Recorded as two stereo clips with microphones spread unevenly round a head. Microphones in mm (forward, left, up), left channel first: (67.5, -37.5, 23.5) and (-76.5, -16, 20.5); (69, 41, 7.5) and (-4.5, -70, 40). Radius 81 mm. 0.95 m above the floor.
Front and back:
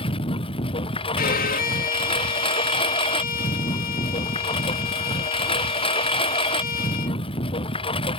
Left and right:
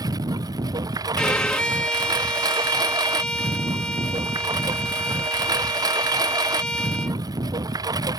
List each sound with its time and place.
0.0 s a lawn mower: 60° right
1.2 s a violin: 25° right